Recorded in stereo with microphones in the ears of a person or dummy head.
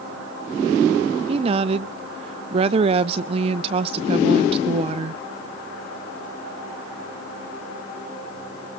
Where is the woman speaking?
35° right (ahead or behind), 0.7 m.